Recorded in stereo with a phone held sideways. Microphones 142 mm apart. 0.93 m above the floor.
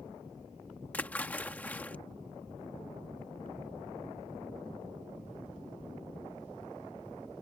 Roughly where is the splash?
Centre.